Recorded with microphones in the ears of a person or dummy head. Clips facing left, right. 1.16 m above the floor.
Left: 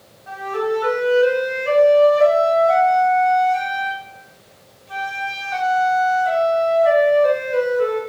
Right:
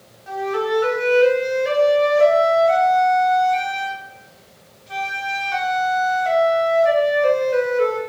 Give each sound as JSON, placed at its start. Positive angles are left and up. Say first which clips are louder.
{"t": 0.3, "sound": "a flute", "louder": "right 1 dB", "side_deg": -40, "distance_m": 0.8}